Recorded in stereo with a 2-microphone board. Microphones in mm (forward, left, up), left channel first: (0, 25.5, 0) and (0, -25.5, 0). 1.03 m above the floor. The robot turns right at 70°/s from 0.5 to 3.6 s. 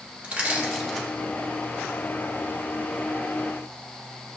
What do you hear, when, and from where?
0.2 s crushing: 25° right (ahead or behind), 1.9 m; by 1.1 s 15° left (ahead or behind), 1.9 m